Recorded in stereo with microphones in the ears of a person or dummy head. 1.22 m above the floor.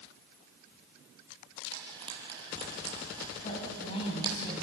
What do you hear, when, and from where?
1.7 s frying: 25° right (ahead or behind), 6 m
3.4 s a woman speaking: 40° left (ahead or behind), 7 m